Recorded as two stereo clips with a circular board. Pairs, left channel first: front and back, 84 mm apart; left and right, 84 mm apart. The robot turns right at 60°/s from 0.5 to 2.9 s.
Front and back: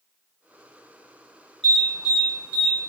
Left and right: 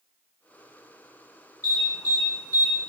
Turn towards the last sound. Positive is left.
turn(degrees=160)